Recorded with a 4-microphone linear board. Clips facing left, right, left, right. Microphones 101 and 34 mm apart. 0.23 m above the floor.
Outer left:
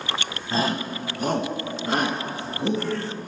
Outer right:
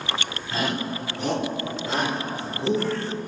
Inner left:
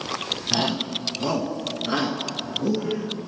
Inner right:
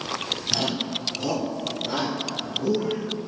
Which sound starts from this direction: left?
A shout, at 0.5 s.